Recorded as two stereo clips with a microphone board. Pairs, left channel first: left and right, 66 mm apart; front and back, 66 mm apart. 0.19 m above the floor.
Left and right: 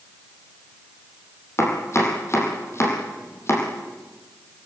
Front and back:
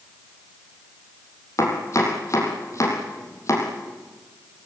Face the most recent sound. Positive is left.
turn(degrees=40)